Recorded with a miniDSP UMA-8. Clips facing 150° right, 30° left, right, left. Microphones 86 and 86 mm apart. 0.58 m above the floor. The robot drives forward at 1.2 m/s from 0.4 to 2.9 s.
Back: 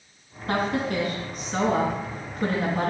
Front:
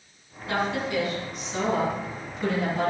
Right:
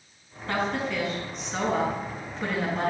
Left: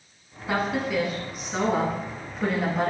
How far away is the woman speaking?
About 5 m.